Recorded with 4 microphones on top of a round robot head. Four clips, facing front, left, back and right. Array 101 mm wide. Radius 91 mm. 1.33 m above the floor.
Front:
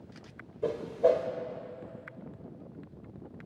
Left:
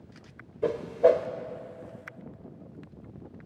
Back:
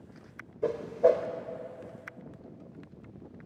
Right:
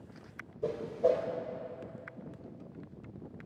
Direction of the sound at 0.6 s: 110° left.